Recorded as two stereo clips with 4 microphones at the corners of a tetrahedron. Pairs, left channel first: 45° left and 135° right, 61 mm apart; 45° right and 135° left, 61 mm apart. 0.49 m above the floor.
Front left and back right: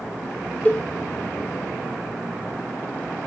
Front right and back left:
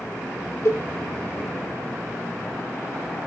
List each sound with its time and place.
0.7 s a cowbell: 15° right, 1.0 m